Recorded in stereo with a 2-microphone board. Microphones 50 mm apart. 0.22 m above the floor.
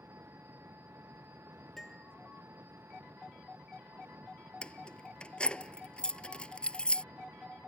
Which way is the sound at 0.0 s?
55° right (ahead or behind).